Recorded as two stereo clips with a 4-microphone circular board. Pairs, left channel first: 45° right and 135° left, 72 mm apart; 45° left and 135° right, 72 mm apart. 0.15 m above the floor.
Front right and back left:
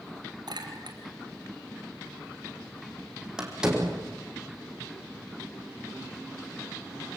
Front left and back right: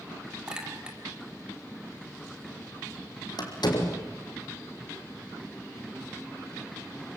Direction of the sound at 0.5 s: 145° left.